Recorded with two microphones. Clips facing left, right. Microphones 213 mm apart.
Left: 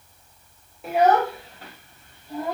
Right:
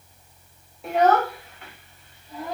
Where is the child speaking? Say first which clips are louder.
Left 1 dB; centre (ahead or behind), 0.6 m; by 2.5 s 60° left (ahead or behind), 1.1 m.